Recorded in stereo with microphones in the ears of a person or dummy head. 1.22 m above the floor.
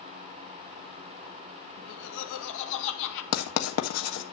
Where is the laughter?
75° left (ahead or behind), 2 m.